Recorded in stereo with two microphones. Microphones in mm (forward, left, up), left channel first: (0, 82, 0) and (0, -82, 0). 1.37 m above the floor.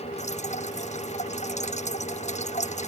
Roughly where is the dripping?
Left.